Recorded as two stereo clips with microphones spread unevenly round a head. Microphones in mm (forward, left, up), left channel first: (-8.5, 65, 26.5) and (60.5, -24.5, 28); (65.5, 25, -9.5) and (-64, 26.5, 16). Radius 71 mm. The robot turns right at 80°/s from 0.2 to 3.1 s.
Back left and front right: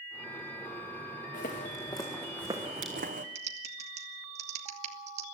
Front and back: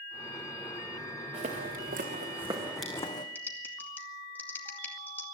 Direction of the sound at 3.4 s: 75° right.